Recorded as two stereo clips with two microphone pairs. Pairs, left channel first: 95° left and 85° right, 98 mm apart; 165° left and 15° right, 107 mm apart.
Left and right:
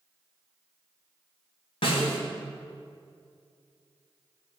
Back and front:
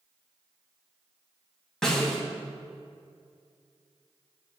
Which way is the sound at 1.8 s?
80° left.